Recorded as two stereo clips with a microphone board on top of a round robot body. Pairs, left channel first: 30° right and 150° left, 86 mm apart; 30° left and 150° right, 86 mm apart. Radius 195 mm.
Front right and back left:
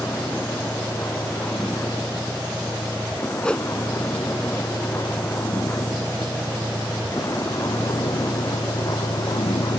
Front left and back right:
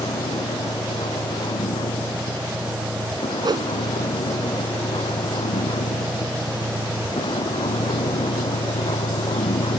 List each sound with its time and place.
0.0 s a vehicle: 35° left; by 9.8 s 10° left
3.4 s a whoosh: 110° right